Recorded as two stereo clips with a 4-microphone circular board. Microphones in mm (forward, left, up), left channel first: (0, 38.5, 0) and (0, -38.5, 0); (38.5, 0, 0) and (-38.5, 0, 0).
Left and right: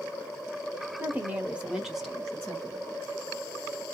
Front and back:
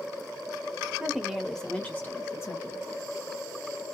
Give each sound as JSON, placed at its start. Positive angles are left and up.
{"t": 1.0, "sound": "a woman speaking", "azimuth_deg": -120, "distance_m": 1.1}